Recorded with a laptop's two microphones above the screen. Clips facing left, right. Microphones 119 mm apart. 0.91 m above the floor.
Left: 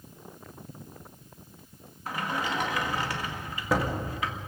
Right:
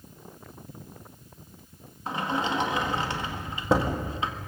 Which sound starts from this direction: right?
A sliding door, at 2.1 s.